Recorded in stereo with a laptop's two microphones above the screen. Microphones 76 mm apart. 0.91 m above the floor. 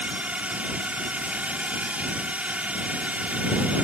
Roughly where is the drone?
Centre.